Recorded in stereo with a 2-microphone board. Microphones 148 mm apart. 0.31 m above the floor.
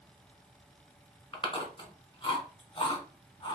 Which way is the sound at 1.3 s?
35° left (ahead or behind).